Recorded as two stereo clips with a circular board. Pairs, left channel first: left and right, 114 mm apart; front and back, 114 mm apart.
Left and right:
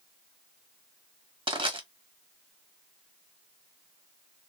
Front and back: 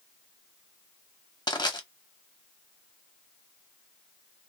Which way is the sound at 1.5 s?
50° right.